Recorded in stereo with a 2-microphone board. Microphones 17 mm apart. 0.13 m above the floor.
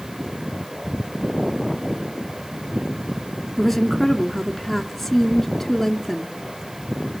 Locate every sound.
3.6 s a woman speaking: 10° left (ahead or behind), 1.8 m